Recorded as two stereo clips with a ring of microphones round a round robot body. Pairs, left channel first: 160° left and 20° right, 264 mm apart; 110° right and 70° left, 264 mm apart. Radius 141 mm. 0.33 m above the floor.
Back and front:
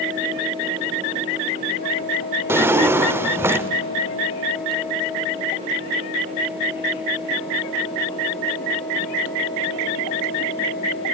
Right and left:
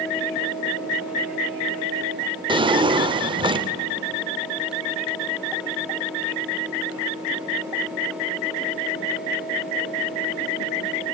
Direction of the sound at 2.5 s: 40° left.